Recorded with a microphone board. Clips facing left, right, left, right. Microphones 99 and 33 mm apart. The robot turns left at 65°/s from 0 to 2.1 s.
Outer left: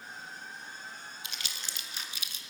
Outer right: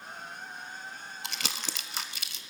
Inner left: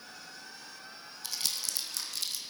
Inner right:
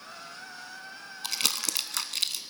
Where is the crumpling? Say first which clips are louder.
Outer right 6 dB, inner right 6 dB; 65° right (ahead or behind), 0.5 m; by 2.4 s 60° right (ahead or behind), 0.5 m.